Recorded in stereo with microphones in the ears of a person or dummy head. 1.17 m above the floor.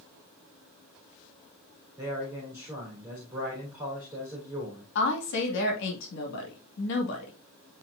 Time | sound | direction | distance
2.0 | a man speaking | 15° right (ahead or behind) | 3.5 m
5.0 | a woman speaking | 60° left (ahead or behind) | 2 m